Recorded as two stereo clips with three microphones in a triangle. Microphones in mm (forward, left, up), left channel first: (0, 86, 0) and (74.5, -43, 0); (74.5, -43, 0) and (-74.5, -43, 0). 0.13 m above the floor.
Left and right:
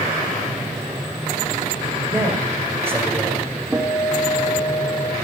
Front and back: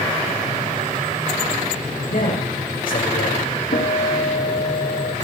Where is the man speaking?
15° left, 7 m.